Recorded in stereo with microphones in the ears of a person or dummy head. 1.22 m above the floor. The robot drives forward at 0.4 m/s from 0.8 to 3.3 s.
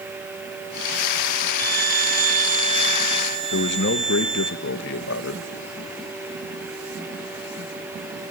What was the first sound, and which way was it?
A violin, 45° right (ahead or behind).